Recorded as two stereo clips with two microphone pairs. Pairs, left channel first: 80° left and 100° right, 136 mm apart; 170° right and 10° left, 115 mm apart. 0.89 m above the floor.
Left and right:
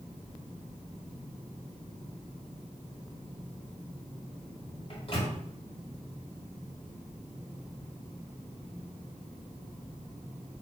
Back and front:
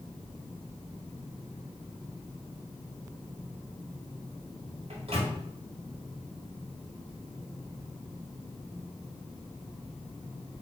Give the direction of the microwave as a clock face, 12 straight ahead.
11 o'clock.